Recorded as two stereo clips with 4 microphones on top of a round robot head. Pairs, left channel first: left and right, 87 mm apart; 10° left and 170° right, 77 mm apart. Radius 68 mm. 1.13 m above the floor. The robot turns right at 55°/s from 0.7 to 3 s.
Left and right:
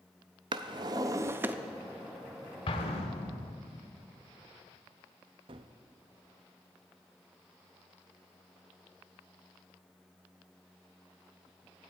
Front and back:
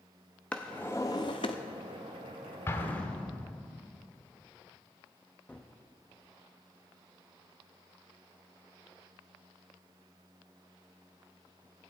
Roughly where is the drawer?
Ahead right.